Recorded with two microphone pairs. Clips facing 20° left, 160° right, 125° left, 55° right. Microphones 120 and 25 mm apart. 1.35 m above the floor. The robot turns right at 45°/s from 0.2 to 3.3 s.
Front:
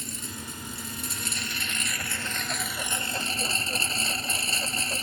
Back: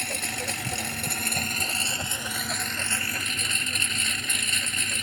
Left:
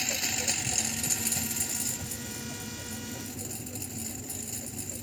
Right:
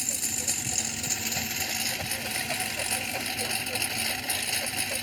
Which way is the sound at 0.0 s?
175° right.